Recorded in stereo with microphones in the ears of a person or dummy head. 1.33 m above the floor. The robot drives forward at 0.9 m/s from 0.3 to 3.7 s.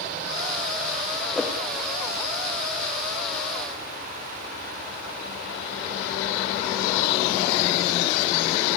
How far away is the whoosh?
About 2.5 m.